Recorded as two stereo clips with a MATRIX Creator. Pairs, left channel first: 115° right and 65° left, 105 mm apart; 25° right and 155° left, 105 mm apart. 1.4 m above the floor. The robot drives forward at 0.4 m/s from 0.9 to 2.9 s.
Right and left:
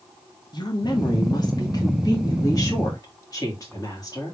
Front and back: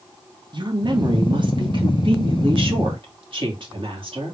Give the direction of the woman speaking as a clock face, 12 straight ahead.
5 o'clock.